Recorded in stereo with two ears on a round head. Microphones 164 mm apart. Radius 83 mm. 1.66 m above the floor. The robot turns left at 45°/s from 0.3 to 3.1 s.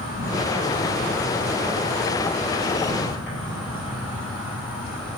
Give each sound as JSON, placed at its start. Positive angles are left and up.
{"t": 0.0, "sound": "an insect", "azimuth_deg": 125, "distance_m": 6.0}